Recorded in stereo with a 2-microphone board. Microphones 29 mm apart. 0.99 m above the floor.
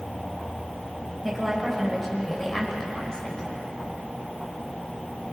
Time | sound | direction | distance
1.2 | a woman speaking | 5° left (ahead or behind) | 4.5 m